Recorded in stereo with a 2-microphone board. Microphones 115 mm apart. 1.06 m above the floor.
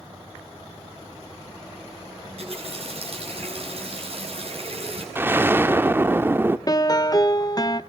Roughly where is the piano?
Left.